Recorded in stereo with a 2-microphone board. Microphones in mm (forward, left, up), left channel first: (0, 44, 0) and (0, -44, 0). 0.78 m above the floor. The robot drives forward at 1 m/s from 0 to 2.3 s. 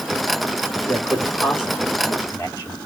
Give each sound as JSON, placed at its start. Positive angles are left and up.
{"t": 0.9, "sound": "a man speaking", "side_deg": 30, "distance_m": 1.8}